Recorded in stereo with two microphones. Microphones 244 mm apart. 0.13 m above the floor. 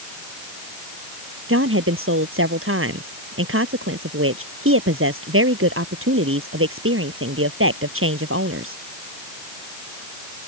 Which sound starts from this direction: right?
A woman speaking, at 1.5 s.